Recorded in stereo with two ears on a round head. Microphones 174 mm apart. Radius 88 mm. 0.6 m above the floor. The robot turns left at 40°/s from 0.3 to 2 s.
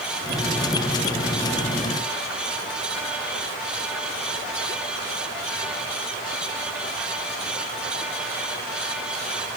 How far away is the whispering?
No whispering in this recording.